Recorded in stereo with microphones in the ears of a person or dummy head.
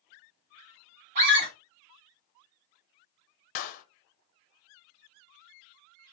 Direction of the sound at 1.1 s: 40° right (ahead or behind).